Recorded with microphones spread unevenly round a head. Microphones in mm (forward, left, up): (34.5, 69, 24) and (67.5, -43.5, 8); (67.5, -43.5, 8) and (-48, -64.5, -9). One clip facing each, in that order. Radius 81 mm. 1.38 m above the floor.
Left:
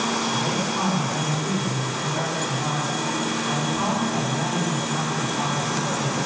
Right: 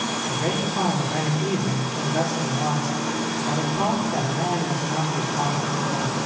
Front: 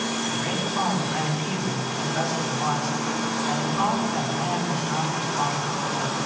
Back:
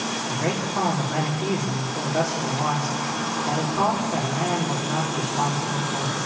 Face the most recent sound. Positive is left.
turn(degrees=-130)